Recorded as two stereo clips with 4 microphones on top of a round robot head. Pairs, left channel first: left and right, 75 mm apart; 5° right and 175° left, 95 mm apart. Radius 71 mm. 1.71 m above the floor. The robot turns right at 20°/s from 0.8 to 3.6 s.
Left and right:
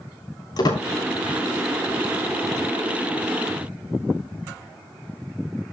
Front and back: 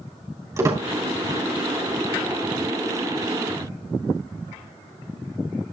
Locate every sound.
0.6 s a squeak: 120° left, 3 m